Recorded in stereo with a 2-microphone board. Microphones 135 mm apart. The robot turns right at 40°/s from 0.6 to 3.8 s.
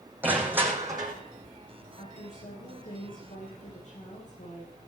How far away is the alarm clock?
I don't hear an alarm clock.